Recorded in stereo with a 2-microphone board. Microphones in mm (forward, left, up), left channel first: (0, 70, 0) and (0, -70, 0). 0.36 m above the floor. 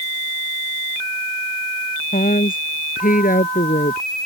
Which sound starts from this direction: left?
A woman speaking, at 2.1 s.